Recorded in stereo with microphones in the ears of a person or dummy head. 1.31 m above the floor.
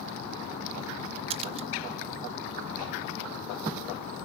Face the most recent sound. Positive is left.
turn(degrees=-35)  # may be behind; listen again after turning